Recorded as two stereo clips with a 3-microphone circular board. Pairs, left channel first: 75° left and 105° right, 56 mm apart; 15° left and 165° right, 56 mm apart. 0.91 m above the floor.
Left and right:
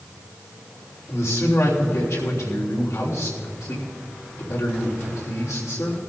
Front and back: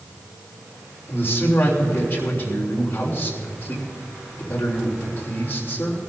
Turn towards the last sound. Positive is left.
turn(degrees=65)